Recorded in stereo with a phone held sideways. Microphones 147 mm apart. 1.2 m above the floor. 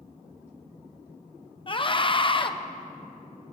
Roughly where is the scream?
Left.